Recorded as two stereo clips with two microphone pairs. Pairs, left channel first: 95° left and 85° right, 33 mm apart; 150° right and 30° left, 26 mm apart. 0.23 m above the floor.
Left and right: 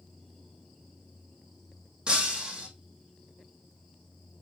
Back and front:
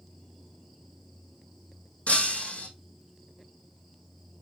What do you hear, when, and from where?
2.1 s breaking glass: 145° right, 2.5 m